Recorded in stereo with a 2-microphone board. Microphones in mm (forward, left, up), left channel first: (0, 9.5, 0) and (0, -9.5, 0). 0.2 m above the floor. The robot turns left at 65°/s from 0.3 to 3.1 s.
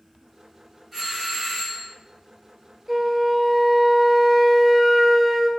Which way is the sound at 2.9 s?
15° right (ahead or behind).